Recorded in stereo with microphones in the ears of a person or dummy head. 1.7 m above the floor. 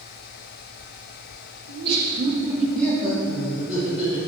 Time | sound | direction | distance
1.7 | laughter | 60° right (ahead or behind) | 1.8 m